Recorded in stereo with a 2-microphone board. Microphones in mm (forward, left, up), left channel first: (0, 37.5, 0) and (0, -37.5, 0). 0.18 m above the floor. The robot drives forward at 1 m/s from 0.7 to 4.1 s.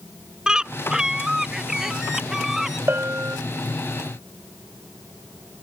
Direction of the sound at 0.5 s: 10° right (ahead or behind).